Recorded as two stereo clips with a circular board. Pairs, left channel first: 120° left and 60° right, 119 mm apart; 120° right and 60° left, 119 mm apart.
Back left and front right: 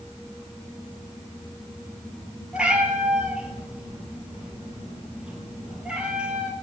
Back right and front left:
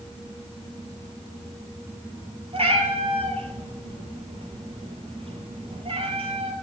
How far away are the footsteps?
I don't hear footsteps.